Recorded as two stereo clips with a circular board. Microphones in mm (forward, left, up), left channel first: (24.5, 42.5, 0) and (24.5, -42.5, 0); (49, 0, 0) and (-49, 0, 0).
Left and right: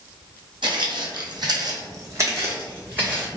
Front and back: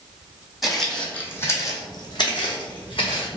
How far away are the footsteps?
About 0.9 m.